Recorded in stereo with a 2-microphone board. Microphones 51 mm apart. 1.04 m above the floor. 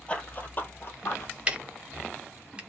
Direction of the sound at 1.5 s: 20° right (ahead or behind).